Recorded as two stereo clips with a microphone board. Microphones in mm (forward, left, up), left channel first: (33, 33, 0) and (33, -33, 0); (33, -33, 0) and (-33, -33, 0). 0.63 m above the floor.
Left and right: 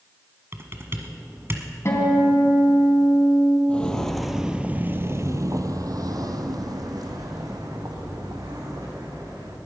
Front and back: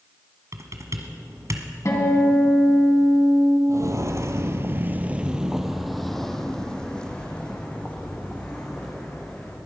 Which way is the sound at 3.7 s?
155° left.